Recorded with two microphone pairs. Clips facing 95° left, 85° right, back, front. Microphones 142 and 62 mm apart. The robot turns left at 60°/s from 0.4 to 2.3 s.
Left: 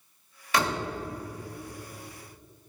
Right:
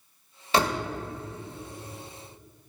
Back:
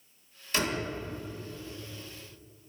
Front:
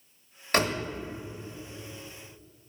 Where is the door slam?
25° right, 0.8 m; by 0.8 s 40° right, 0.8 m.